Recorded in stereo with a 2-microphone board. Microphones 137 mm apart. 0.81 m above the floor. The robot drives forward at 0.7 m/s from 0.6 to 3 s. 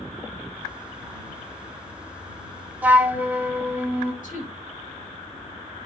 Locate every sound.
2.8 s a flute: 10° right (ahead or behind), 0.8 m
4.2 s a woman speaking: 70° left (ahead or behind), 3.5 m